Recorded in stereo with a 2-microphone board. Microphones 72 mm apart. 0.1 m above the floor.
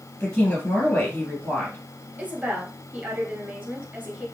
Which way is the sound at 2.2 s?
20° right (ahead or behind).